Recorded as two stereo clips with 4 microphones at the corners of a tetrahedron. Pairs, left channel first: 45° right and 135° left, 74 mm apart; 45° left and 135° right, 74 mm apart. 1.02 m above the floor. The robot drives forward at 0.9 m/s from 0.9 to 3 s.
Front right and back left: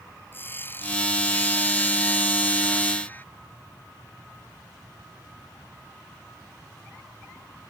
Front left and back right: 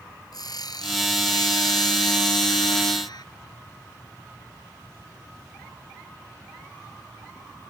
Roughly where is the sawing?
Ahead.